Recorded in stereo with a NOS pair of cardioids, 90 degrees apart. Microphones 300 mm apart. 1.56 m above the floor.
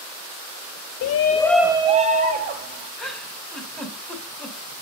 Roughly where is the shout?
Ahead left.